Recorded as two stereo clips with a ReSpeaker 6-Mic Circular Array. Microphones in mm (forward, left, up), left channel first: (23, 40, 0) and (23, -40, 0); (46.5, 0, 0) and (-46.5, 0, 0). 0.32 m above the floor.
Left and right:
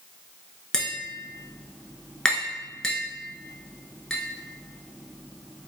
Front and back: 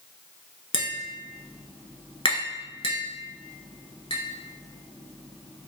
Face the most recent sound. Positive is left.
turn(degrees=10)